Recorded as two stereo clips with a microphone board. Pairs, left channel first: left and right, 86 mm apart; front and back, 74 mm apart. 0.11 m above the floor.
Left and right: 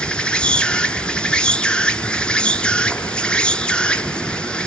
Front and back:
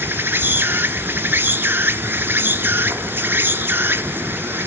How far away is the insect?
About 1.0 m.